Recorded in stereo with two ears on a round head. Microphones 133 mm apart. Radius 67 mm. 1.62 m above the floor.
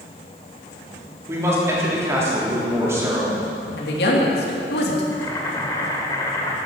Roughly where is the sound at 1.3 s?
Centre.